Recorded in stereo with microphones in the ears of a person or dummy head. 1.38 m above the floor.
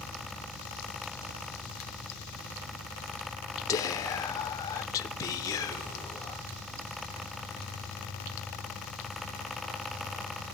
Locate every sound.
0.0 s an engine running: 30° right (ahead or behind), 6 m
3.7 s whispering: 20° left (ahead or behind), 0.9 m